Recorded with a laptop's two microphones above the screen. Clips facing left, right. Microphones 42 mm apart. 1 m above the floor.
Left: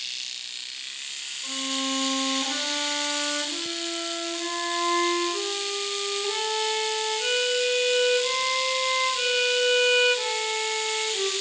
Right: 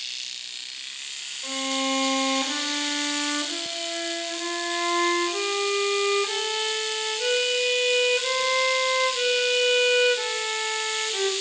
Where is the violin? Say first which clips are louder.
Right 3 dB; 25° right (ahead or behind), 0.6 m.